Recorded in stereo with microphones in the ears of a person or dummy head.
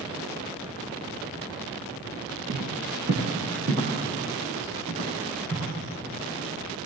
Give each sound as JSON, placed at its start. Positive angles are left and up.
{"t": 2.5, "sound": "footsteps", "side_deg": -55, "distance_m": 3.0}